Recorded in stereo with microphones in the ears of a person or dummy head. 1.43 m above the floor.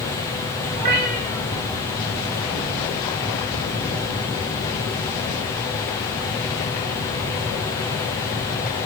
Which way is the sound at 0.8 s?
45° right (ahead or behind).